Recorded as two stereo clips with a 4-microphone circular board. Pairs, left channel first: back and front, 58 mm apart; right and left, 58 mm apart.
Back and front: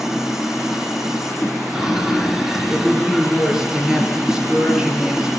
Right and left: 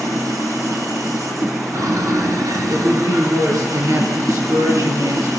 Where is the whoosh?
100° left, 3.5 m.